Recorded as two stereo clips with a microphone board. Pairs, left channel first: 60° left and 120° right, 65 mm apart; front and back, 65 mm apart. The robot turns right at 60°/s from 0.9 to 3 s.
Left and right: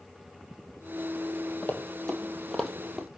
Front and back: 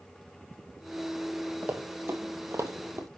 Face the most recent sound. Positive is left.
turn(degrees=155)